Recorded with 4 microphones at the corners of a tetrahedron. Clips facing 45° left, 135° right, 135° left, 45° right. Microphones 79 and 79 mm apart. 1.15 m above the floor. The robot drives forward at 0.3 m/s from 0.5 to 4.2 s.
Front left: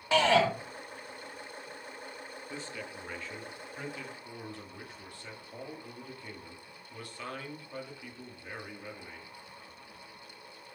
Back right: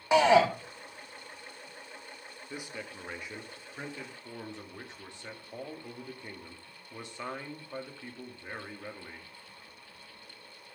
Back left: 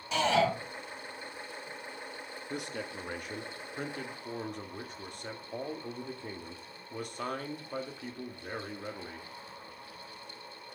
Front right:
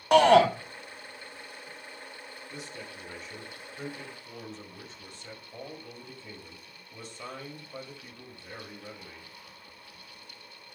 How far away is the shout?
About 1.1 m.